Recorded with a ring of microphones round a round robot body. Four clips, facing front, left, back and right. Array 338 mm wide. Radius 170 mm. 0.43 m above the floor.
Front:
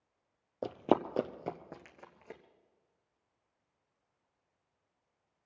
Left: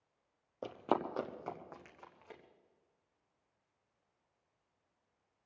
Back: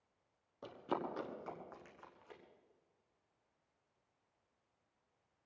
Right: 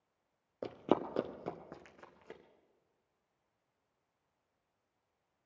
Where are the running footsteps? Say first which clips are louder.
Right 2 dB, front 11 dB; 20° right, 0.6 m; by 2.4 s 40° right, 2 m.